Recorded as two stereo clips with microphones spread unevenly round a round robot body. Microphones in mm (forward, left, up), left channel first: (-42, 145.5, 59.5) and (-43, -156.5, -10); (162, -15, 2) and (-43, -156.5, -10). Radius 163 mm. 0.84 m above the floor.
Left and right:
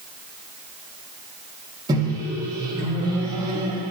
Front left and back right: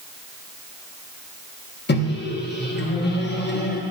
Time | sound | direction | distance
1.9 | a microwave | 15° right | 1.0 m